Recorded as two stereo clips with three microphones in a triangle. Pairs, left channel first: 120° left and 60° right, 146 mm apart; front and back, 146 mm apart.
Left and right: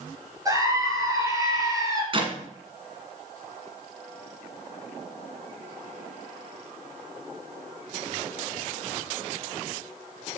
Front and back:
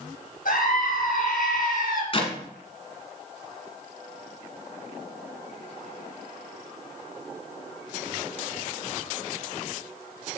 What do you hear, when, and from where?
0.5 s a scream: 5° left, 3.5 m
2.1 s a clap: 30° right, 1.7 m